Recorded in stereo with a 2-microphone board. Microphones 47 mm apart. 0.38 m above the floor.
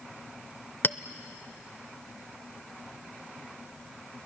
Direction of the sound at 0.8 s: 40° left (ahead or behind).